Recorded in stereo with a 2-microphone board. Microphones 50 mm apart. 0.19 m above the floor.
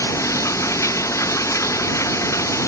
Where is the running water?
80° left.